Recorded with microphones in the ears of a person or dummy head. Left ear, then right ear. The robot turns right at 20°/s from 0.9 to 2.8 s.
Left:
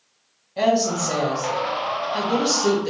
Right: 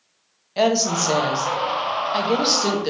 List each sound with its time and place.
0.6 s a woman speaking: 75° right, 0.7 m; by 2.9 s 40° right, 0.7 m